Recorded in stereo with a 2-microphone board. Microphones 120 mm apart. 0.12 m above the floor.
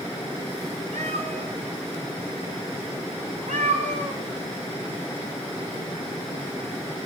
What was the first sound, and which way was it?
A cat meowing, 80° right.